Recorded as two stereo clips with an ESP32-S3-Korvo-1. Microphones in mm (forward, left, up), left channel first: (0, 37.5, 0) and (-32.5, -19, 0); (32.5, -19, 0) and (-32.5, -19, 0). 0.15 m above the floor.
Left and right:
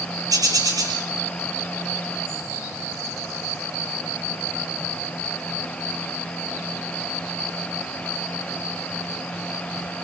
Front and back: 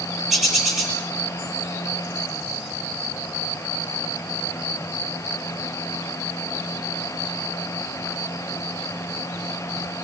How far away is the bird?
About 7 m.